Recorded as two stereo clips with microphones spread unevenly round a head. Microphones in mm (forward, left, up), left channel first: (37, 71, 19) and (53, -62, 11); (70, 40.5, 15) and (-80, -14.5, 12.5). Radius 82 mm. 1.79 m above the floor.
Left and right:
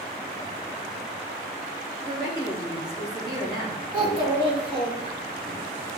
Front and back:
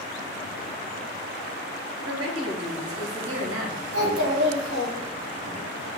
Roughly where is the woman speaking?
Behind.